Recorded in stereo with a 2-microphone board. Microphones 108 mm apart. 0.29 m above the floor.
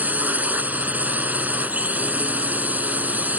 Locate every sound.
0.0 s a drone: 15° right (ahead or behind)